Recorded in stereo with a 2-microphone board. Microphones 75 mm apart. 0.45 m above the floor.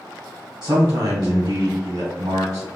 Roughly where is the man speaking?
Right.